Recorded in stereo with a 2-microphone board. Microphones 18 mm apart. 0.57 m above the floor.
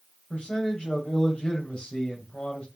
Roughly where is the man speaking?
Left.